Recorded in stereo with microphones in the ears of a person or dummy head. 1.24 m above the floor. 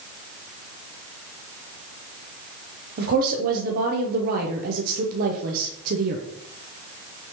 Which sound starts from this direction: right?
A woman speaking, at 3.0 s.